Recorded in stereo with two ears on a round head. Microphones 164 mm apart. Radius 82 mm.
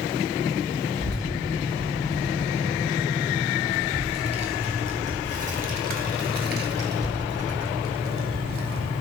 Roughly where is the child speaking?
Right.